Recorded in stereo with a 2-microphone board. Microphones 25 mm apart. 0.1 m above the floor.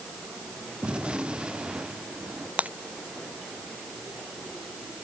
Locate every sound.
0.8 s a gunshot: 40° right (ahead or behind)
2.6 s breaking glass: 80° right